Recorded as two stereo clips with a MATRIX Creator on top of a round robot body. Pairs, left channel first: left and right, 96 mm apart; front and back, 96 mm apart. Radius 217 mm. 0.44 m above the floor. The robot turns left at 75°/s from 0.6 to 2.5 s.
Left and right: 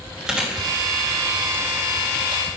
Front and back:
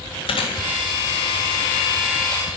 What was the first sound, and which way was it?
Chewing, 10° right.